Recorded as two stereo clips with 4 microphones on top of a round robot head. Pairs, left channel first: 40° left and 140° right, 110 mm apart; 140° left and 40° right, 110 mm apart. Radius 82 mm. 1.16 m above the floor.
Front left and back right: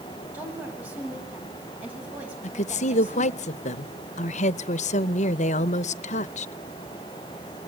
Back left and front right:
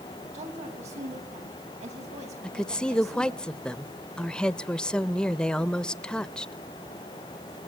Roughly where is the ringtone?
No ringtone in this recording.